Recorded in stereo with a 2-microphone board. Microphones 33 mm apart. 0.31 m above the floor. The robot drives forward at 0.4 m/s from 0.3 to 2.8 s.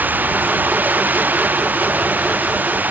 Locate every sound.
0.0 s running water: 60° right (ahead or behind); by 2.9 s 55° right (ahead or behind)